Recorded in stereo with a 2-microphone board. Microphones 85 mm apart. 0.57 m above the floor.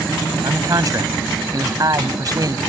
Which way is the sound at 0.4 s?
45° right (ahead or behind).